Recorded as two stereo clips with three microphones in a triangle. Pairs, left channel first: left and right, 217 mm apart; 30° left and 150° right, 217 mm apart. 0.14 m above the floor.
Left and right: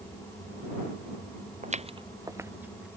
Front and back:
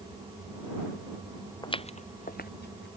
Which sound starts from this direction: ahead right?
Footsteps, at 1.6 s.